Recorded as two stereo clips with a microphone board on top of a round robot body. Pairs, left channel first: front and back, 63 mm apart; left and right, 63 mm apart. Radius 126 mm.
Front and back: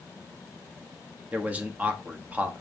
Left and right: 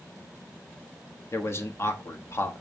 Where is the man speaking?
120° left, 1.4 m.